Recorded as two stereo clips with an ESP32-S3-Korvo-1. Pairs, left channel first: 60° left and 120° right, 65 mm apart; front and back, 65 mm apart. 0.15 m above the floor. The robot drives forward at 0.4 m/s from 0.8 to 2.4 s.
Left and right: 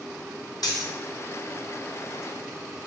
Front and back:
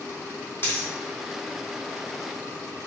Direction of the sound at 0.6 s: 50° left.